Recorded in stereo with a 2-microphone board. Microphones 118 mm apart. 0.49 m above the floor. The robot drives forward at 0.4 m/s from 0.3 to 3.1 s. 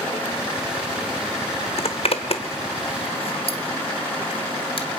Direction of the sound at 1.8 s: 60° left (ahead or behind).